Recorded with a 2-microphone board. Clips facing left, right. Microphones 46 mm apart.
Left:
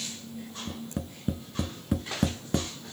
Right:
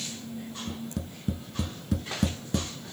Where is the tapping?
25° left (ahead or behind), 0.7 m.